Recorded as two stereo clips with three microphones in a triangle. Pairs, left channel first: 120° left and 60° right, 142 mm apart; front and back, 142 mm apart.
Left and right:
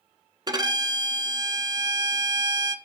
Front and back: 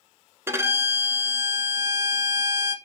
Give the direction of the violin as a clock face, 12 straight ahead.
4 o'clock.